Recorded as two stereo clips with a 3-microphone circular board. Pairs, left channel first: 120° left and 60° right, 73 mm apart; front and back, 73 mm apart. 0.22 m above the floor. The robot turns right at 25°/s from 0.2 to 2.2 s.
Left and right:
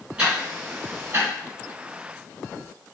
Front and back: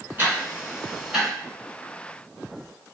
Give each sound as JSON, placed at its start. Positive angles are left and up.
{"t": 0.2, "sound": "ticking", "azimuth_deg": -120, "distance_m": 2.5}